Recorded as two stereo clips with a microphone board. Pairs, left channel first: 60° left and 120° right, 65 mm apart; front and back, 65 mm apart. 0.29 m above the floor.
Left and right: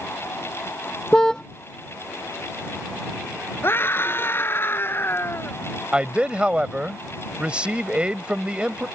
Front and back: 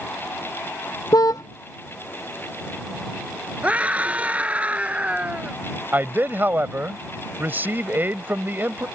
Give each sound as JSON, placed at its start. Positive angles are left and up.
{"t": 1.1, "sound": "a car horn", "azimuth_deg": -20}
{"t": 3.6, "sound": "a scream", "azimuth_deg": 115}
{"t": 5.9, "sound": "a man speaking", "azimuth_deg": -175}